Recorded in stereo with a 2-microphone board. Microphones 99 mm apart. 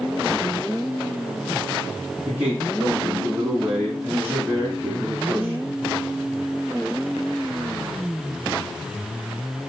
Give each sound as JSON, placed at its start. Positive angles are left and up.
{"t": 2.2, "sound": "a man speaking", "side_deg": -20, "distance_m": 3.0}